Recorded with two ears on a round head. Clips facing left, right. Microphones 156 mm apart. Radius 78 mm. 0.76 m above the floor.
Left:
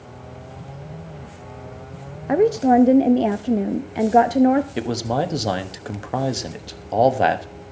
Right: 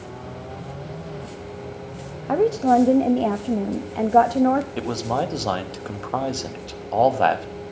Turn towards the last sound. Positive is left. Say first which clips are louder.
# left 2 dB
turn(degrees=15)  # may be behind; listen again after turning